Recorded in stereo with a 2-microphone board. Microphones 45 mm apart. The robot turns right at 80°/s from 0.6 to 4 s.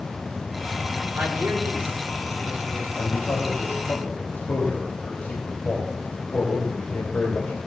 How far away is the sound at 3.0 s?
About 3.5 m.